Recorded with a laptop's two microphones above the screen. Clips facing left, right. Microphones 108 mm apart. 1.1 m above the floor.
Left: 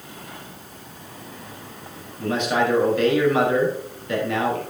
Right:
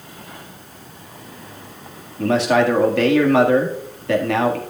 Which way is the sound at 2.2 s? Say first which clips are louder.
Right 5 dB; 80° right.